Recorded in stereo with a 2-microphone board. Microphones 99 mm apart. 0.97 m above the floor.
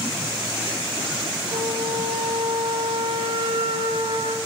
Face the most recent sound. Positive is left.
turn(degrees=-65)  # may be behind; listen again after turning